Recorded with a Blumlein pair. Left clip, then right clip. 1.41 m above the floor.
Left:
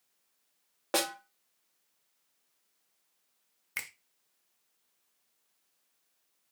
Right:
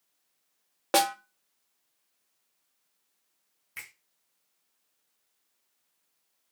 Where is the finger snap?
65° left, 0.6 m.